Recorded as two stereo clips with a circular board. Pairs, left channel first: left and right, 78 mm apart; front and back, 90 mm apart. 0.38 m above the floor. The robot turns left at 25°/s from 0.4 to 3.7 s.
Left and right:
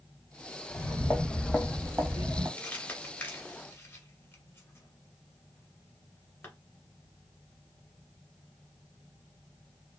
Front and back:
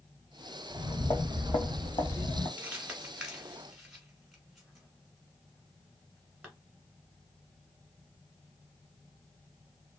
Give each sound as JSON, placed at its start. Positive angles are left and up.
{"t": 0.7, "sound": "footsteps", "azimuth_deg": 50, "distance_m": 1.0}
{"t": 2.6, "sound": "crumpling", "azimuth_deg": 130, "distance_m": 1.4}